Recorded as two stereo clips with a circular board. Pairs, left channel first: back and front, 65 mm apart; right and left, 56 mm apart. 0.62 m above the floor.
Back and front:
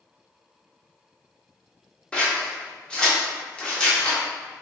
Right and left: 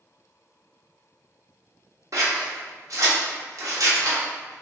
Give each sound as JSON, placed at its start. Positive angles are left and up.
{"t": 2.1, "sound": "scissors", "azimuth_deg": 105, "distance_m": 0.7}